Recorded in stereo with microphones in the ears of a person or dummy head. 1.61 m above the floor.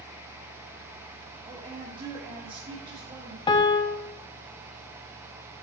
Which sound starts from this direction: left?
A piano, at 3.5 s.